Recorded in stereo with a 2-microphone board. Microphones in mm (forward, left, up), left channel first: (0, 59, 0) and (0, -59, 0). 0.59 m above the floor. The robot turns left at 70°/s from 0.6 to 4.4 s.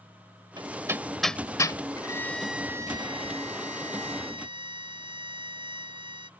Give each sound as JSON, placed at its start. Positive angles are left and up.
{"t": 0.6, "sound": "hammering", "side_deg": -45}
{"t": 2.0, "sound": "a violin", "azimuth_deg": 35}